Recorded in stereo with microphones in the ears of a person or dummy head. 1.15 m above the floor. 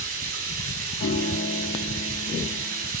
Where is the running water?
55° right (ahead or behind), 5.5 m.